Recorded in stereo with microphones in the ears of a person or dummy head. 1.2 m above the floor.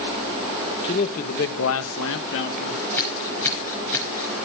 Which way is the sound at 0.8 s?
25° left (ahead or behind).